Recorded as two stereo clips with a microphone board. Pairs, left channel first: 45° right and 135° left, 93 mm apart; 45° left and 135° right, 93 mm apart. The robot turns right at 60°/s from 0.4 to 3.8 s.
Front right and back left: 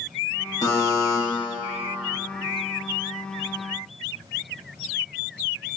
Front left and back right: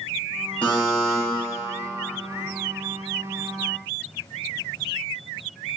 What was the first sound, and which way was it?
A buzzer, 25° right.